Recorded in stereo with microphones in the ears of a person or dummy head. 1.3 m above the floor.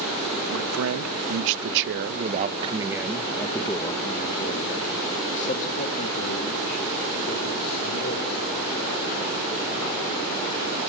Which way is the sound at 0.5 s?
80° right.